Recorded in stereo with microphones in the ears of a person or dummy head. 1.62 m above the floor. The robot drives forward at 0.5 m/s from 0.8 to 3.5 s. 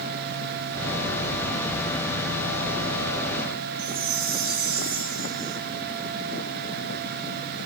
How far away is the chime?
About 0.7 m.